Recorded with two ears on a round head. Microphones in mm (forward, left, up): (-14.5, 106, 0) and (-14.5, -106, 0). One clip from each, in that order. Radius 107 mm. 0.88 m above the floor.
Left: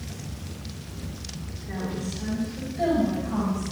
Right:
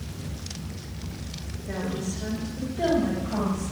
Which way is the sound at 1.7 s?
40° right (ahead or behind).